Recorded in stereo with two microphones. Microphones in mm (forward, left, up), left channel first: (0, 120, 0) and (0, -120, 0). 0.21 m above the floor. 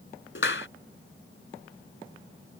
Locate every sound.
0.3 s a clap: 60° left (ahead or behind)